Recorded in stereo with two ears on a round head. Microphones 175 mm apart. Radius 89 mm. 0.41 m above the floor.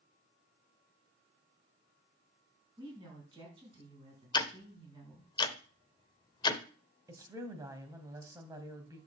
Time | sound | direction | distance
2.8 | a woman speaking | 20° right (ahead or behind) | 5 m
4.3 | ticking | 25° left (ahead or behind) | 0.9 m
7.1 | a woman speaking | 15° right (ahead or behind) | 2.5 m